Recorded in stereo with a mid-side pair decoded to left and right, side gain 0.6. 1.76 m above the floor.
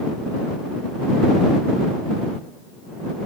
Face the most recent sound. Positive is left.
No sound to turn to.